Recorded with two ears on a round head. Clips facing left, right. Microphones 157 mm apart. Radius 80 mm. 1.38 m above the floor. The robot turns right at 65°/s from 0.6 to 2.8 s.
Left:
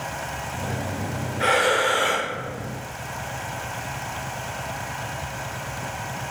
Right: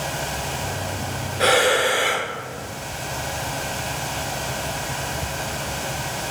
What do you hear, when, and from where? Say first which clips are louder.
1.4 s breathing: right 3 dB; 60° right, 0.6 m; by 2.3 s straight ahead, 0.6 m